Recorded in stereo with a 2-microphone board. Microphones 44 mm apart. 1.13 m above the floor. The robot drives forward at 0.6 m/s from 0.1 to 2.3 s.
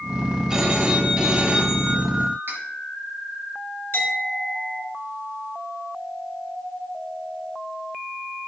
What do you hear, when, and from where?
0.5 s a phone ringing: 20° right (ahead or behind), 3 m; by 2.4 s 35° right (ahead or behind), 2.0 m
2.5 s cutlery clinking: 50° right (ahead or behind), 5 m
3.9 s a clink: 50° left (ahead or behind), 5 m